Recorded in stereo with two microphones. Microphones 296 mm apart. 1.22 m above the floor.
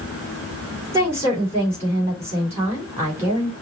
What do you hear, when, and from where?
0.9 s a woman speaking: 10° right (ahead or behind), 3 m